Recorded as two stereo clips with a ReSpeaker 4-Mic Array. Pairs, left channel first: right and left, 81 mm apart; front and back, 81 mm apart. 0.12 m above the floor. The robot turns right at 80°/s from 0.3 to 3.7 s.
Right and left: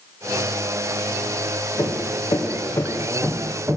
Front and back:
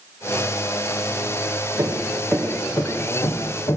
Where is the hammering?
130° right, 2.5 m; by 3.8 s 25° left, 2.5 m.